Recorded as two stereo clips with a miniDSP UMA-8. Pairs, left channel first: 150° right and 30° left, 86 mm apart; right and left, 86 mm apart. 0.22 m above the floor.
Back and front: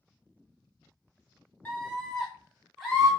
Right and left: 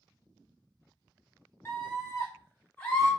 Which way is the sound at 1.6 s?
100° right.